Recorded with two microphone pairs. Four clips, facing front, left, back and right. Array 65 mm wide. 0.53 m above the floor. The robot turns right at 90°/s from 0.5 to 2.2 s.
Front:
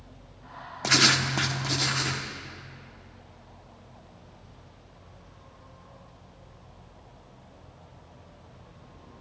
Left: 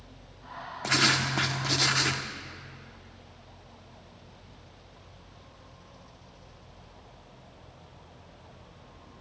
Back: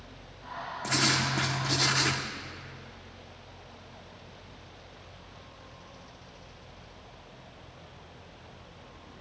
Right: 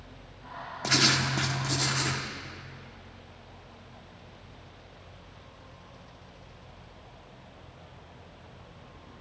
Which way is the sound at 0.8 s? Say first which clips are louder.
Left 1 dB, front 5 dB; 15° left.